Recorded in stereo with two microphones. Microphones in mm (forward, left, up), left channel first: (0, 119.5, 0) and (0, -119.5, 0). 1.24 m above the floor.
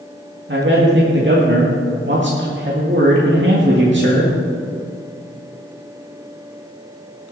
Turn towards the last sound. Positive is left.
turn(degrees=-50)  # may be behind; listen again after turning